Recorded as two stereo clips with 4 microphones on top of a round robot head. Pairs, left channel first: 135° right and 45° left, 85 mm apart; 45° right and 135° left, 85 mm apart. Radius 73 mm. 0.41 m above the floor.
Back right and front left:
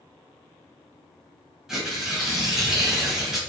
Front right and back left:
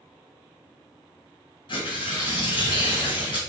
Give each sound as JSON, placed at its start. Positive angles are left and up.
{"t": 1.7, "sound": "tearing paper", "azimuth_deg": -40, "distance_m": 2.5}